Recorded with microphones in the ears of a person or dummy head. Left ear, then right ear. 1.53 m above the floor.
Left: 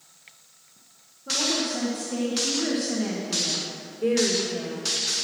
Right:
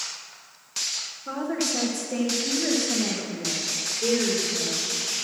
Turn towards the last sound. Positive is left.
turn(degrees=30)  # may be behind; listen again after turning